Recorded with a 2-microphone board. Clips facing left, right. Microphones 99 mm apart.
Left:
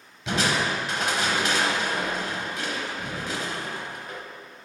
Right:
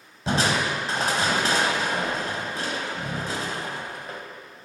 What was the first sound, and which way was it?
Crushing, 40° right (ahead or behind).